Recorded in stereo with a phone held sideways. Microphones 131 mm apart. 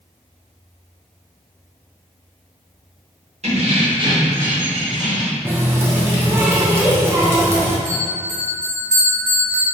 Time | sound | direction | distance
3.4 | keys jangling | 55° right (ahead or behind) | 1.1 m
5.5 | a running tap | 15° right (ahead or behind) | 0.7 m
7.8 | a bell | 15° left (ahead or behind) | 1.5 m